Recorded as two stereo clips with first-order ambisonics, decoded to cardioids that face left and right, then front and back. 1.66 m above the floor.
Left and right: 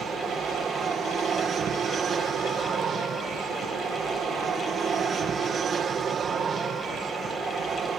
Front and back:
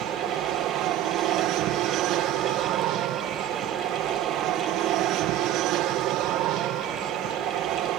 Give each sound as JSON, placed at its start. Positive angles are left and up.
{"t": 0.0, "sound": "an aircraft", "azimuth_deg": -150}